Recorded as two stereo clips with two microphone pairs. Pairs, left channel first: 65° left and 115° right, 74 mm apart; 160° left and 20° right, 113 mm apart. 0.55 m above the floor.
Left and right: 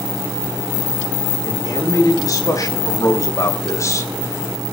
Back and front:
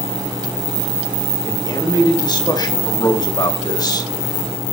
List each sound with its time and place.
1.4 s a man speaking: 105° left, 5.5 m; by 4.1 s 110° left, 2.0 m